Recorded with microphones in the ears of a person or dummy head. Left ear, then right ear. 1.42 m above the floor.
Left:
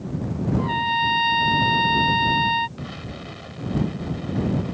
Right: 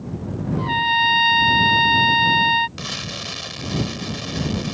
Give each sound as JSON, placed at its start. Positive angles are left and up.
{"t": 0.6, "sound": "a trumpet", "side_deg": -15}
{"t": 2.8, "sound": "an explosion", "side_deg": -85}